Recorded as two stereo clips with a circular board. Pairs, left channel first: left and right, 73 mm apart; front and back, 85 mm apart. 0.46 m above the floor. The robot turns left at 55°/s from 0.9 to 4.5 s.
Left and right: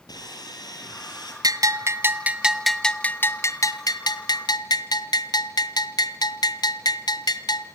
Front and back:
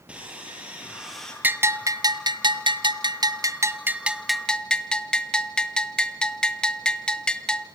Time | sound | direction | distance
0.1 | sawing | 105° left | 8.5 m
1.4 | a bell | 110° right | 1.6 m